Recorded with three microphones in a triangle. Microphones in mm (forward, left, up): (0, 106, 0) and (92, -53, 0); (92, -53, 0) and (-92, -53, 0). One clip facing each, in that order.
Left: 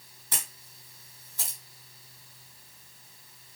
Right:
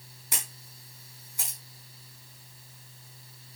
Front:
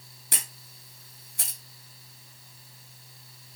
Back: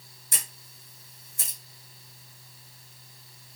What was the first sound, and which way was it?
A camera shutter, 20° left.